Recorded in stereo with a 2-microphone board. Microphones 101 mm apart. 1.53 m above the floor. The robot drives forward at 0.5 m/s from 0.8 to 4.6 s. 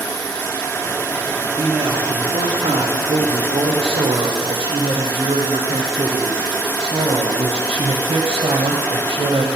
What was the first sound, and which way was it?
A man speaking, 45° right (ahead or behind).